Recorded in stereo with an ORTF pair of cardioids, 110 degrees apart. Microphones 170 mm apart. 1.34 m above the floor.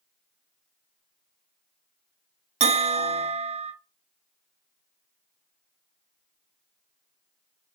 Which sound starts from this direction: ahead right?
A bell, at 2.6 s.